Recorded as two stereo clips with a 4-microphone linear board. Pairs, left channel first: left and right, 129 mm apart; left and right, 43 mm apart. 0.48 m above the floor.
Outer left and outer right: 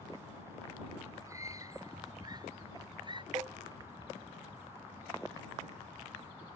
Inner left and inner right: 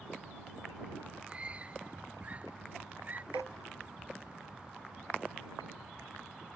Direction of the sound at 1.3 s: 25° right (ahead or behind).